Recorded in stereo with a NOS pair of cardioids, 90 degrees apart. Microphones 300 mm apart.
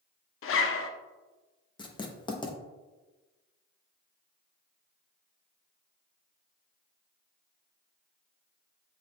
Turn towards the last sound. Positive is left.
turn(degrees=15)